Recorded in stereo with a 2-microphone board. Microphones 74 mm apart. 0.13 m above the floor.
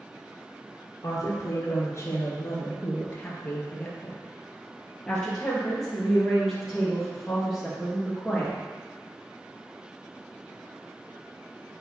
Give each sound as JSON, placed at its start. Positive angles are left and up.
{"t": 1.0, "sound": "a woman speaking", "side_deg": 50, "distance_m": 1.8}